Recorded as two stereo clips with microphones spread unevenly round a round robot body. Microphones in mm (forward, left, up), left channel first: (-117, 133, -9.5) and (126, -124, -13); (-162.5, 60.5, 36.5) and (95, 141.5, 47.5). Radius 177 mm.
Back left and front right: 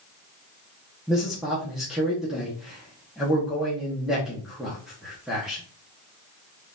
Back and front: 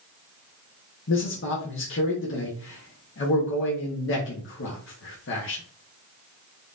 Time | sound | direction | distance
1.1 | a man speaking | 135° right | 1.0 m